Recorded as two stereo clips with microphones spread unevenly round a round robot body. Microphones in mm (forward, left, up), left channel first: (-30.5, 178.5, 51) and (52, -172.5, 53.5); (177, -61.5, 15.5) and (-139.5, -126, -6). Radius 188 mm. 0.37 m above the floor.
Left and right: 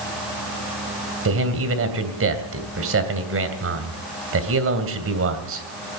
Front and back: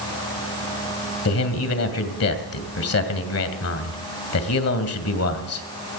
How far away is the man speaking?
About 2.5 m.